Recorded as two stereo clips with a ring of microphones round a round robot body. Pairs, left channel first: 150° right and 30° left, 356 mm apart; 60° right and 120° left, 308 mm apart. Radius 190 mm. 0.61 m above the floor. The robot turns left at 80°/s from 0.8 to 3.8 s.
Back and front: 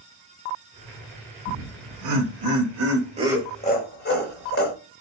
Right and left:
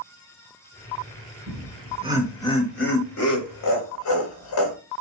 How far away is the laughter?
About 3.5 m.